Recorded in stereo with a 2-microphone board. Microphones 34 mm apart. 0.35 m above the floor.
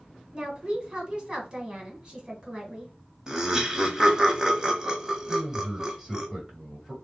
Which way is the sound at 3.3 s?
20° right (ahead or behind).